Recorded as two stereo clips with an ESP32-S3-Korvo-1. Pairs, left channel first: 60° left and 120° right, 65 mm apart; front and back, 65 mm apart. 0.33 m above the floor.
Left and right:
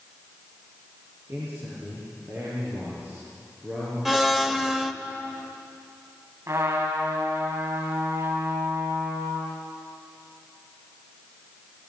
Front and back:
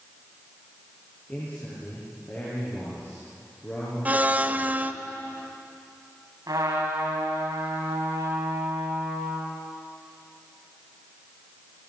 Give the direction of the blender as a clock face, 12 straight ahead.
6 o'clock.